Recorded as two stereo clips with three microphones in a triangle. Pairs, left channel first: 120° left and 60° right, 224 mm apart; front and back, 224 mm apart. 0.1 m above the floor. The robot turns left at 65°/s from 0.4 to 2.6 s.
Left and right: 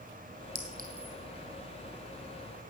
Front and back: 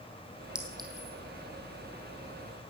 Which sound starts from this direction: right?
A clink, at 0.6 s.